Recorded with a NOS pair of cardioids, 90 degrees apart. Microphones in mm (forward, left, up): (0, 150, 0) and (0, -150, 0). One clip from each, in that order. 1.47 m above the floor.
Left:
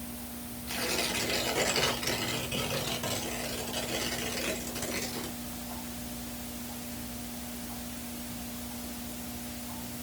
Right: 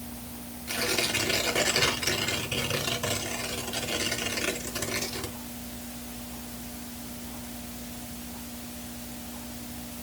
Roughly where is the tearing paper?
Ahead right.